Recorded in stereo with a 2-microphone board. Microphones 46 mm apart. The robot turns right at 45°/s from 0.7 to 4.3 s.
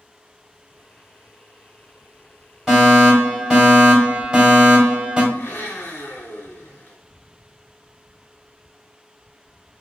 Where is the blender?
65° left (ahead or behind), 1.4 m.